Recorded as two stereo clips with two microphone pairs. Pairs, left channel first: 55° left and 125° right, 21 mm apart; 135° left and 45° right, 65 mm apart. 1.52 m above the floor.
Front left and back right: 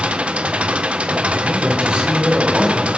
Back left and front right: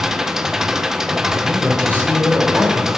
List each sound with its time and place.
0.0 s an engine running: 125° right, 1.0 m
1.4 s a man speaking: 160° right, 7 m